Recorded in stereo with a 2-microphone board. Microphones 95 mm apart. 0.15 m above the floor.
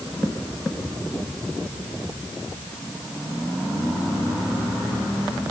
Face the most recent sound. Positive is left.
No sound to turn to.